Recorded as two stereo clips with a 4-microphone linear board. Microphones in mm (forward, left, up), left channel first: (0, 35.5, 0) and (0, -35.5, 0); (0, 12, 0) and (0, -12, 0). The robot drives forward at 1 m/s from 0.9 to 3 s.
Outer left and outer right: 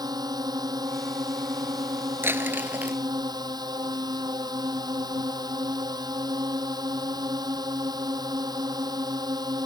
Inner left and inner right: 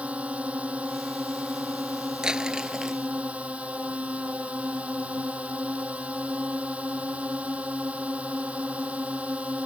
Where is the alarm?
No alarm in this recording.